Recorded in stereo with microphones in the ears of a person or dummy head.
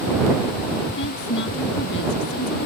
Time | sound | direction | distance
1.0 | a woman speaking | 70° left (ahead or behind) | ?